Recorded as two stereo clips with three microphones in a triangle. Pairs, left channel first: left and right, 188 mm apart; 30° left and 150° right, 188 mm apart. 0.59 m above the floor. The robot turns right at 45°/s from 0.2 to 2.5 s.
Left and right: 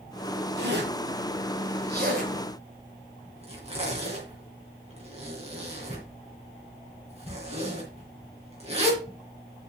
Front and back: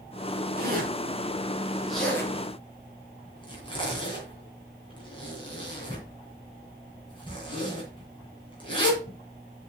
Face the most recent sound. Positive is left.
turn(degrees=-35)